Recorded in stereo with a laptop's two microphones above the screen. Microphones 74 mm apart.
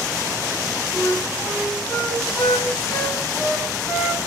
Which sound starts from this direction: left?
A flute, at 0.9 s.